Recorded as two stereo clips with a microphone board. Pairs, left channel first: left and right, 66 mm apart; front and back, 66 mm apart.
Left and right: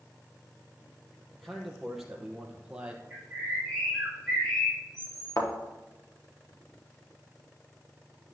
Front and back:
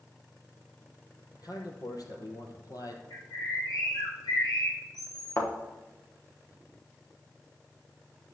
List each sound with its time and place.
1.3 s a man speaking: 5° left, 3 m; by 3.0 s 20° right, 3 m
3.1 s a bird: 10° left, 5 m
5.4 s a thud: 50° left, 4.5 m